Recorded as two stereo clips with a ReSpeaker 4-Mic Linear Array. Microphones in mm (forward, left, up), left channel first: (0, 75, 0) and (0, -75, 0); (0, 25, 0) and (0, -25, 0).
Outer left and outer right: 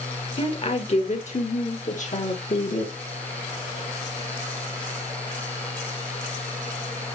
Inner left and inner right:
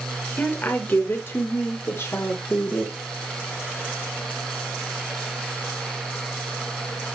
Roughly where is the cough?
No cough in this recording.